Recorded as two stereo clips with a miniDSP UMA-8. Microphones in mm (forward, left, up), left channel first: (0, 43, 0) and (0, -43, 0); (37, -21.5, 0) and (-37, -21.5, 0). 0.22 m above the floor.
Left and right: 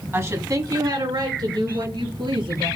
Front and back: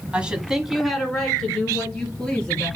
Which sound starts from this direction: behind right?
A woman speaking, at 0.1 s.